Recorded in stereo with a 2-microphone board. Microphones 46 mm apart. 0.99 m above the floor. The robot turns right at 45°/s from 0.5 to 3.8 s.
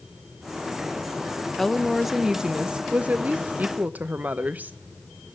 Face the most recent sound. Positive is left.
turn(degrees=-95)